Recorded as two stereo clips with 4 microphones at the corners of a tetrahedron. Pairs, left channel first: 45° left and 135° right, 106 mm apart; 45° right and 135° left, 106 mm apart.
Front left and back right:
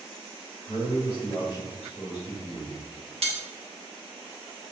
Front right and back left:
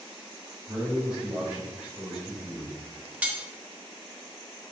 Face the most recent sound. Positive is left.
turn(degrees=-150)